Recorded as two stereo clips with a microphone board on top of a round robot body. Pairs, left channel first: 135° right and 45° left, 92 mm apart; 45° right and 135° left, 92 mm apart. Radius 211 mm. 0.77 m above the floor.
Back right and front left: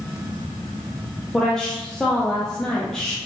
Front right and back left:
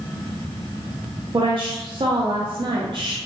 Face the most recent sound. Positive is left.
turn(degrees=140)